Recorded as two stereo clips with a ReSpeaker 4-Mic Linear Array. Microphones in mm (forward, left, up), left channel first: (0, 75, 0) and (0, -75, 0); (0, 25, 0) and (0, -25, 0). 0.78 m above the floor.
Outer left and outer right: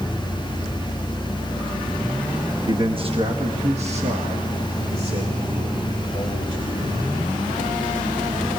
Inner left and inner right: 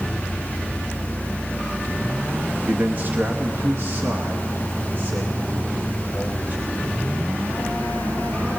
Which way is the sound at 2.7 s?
30° right (ahead or behind).